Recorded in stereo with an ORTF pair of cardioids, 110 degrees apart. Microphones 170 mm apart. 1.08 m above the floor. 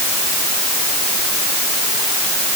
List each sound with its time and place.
Only background noise.